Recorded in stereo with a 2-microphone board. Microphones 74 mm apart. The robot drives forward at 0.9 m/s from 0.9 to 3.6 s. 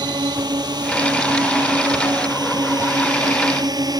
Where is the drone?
70° right (ahead or behind); by 4.0 s 65° right (ahead or behind).